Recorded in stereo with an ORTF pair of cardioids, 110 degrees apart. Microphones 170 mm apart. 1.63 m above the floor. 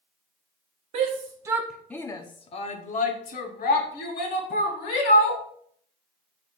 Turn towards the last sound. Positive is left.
turn(degrees=70)